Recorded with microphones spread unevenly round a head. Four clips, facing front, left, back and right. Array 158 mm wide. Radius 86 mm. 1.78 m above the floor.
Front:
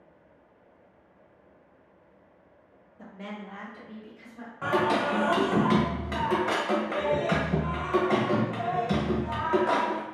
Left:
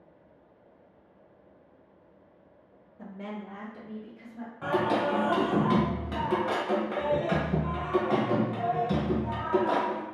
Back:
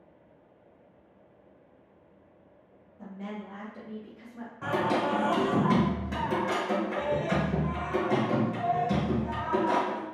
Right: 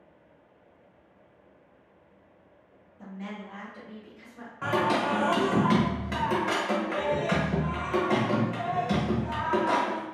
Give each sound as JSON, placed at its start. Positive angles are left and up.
{"t": 3.0, "sound": "a woman speaking", "azimuth_deg": 55, "distance_m": 0.6}
{"t": 4.6, "sound": "singing", "azimuth_deg": -25, "distance_m": 0.9}